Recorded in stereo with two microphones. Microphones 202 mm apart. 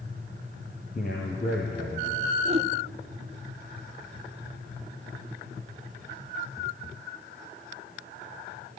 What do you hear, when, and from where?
0.9 s a man speaking: 40° left (ahead or behind), 3.5 m
2.5 s a whoosh: 30° right (ahead or behind), 1.3 m